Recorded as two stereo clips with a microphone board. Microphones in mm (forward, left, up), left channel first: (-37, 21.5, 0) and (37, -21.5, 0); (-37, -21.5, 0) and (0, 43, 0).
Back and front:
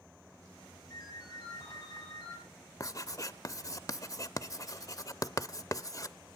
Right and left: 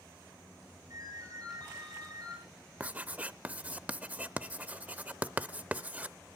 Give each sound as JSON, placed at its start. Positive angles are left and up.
{"t": 0.9, "sound": "a ringtone", "azimuth_deg": 100, "distance_m": 6.0}
{"t": 2.8, "sound": "writing", "azimuth_deg": 125, "distance_m": 0.6}